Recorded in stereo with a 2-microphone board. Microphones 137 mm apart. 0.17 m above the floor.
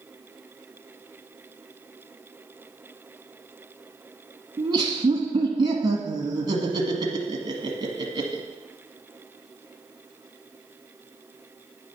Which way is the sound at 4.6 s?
35° right (ahead or behind).